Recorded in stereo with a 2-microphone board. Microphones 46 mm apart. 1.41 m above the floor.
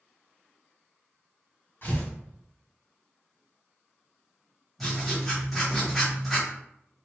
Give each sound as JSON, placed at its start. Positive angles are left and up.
{"t": 1.8, "sound": "tearing paper", "side_deg": 50, "distance_m": 1.8}
{"t": 4.8, "sound": "writing", "side_deg": 5, "distance_m": 1.9}